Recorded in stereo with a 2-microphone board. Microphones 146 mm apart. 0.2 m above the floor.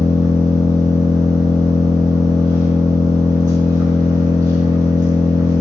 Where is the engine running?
25° right (ahead or behind), 0.7 m.